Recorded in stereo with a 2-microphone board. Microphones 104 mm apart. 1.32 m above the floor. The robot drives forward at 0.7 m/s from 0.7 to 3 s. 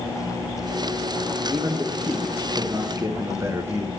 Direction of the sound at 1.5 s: 15° right (ahead or behind).